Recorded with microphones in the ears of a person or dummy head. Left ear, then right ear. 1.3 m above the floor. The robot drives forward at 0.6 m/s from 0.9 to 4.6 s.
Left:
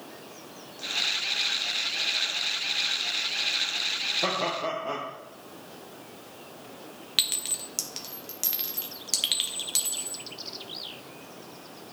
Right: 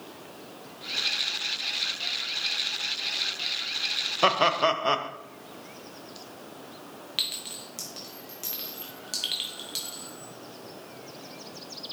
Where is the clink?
10° left (ahead or behind), 0.5 m.